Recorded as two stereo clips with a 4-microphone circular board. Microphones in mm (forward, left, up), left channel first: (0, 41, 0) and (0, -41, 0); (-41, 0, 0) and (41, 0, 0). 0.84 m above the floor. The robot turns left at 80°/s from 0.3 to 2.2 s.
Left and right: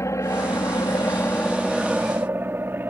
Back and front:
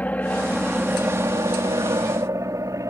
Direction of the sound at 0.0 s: 115° left.